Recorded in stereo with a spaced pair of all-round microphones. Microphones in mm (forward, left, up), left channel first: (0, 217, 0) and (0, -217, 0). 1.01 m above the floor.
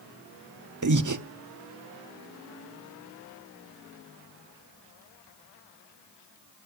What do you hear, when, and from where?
0.8 s breathing: 45° right (ahead or behind), 0.6 m